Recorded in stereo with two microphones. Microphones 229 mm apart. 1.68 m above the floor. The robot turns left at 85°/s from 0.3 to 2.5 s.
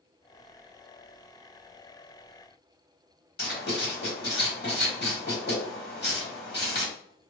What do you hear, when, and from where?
3.4 s writing: 50° left (ahead or behind), 1.3 m